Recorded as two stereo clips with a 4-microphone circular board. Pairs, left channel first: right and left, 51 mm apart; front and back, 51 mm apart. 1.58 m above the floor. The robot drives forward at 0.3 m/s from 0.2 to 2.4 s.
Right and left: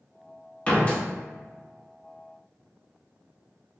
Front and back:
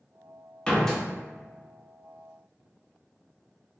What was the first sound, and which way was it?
A door slam, 50° right.